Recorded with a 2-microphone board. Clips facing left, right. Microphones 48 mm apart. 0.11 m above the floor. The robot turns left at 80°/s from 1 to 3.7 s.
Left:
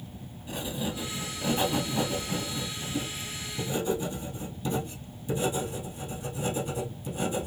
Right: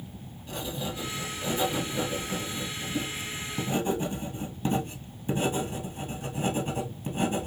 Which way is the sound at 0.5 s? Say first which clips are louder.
Left 1 dB; 175° left.